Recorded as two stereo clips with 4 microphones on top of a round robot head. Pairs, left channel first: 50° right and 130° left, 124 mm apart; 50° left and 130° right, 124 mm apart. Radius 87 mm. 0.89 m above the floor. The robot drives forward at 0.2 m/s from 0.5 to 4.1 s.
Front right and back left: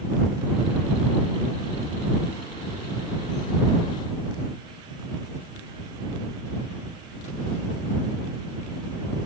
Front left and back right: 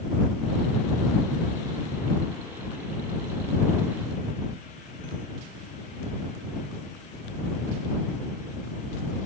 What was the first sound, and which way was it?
Only background noise.